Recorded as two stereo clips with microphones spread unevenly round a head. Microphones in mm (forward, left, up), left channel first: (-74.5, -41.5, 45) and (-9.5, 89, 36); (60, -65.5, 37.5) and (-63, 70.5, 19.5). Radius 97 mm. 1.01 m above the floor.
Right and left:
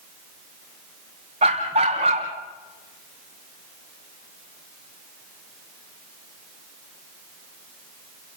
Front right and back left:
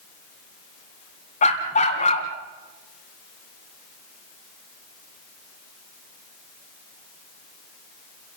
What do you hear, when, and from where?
1.4 s a dog barking: 5° left, 2.5 m